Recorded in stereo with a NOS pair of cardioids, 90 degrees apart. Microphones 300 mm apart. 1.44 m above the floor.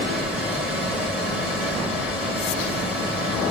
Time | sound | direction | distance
0.0 | a fan | 5° right | 1.9 m